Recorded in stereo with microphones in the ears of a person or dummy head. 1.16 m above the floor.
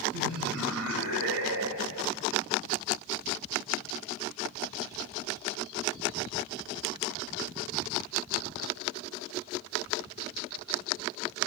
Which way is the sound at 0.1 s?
75° right (ahead or behind).